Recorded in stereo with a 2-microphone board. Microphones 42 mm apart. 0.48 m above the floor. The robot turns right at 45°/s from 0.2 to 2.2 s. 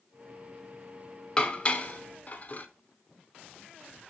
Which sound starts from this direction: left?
Dishes clattering, at 1.4 s.